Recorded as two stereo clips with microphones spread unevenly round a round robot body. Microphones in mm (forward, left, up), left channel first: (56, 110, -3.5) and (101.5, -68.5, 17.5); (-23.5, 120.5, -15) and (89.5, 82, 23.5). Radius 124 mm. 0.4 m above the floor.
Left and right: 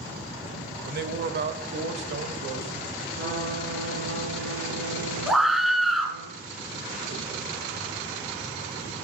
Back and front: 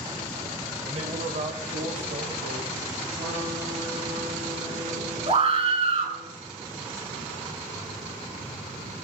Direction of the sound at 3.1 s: 70° right.